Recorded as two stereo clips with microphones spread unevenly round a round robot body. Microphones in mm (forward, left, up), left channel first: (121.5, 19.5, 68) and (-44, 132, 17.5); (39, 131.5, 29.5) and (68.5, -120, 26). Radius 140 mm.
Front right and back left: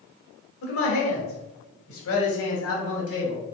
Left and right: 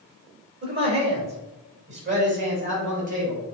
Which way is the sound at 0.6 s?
35° right.